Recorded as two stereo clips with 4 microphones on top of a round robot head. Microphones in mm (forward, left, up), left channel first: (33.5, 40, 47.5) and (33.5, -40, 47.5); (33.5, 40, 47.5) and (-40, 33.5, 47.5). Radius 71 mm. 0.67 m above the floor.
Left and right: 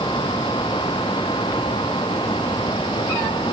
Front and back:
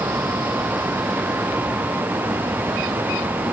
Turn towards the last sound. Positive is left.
No sound to turn to.